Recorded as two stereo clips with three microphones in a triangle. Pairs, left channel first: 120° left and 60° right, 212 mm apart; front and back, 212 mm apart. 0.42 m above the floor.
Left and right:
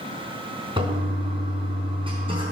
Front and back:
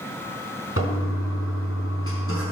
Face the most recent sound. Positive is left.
turn(degrees=5)